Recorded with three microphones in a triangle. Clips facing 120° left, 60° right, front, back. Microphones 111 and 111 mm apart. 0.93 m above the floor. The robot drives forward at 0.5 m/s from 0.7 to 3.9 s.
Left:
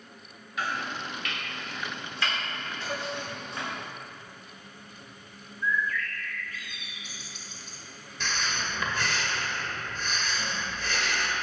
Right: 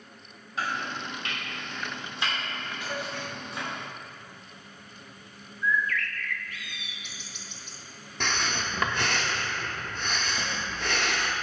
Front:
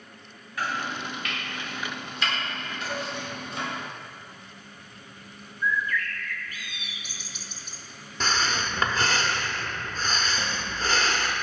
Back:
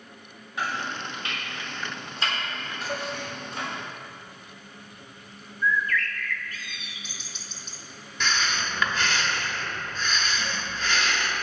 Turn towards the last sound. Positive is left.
turn(degrees=-50)